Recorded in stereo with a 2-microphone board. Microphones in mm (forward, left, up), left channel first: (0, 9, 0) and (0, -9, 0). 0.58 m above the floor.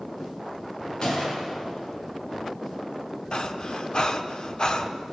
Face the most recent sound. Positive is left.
turn(degrees=50)  # may be behind; listen again after turning